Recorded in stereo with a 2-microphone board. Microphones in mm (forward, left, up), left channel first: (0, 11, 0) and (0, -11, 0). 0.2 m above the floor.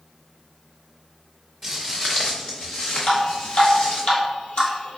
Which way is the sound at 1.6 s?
10° left (ahead or behind).